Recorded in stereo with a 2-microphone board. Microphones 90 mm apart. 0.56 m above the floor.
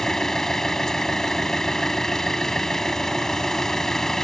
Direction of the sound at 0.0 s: 5° left (ahead or behind).